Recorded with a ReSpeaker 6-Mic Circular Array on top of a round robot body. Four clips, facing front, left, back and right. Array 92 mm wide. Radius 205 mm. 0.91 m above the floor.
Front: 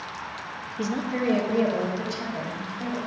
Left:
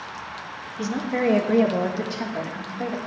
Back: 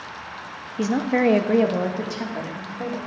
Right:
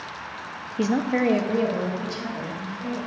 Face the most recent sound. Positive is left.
turn(degrees=130)